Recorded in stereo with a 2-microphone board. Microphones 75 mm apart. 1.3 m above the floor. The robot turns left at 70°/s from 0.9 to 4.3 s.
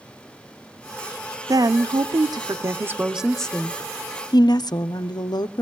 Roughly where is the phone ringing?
I don't hear a phone ringing.